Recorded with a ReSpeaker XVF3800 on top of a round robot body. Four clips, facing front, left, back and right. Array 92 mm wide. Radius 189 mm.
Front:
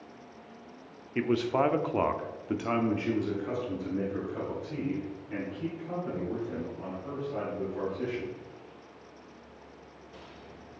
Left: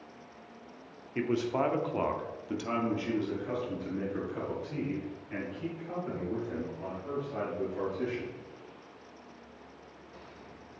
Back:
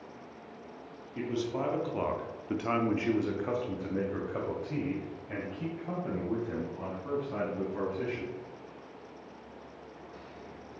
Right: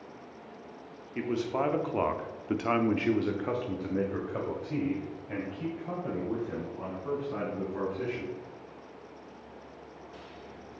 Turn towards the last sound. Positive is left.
turn(degrees=-140)